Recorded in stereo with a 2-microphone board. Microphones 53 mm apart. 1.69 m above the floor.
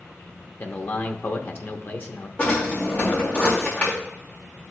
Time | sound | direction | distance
0.6 | a man speaking | 40° left (ahead or behind) | 0.8 m
2.4 | a drawer | 30° left (ahead or behind) | 2.5 m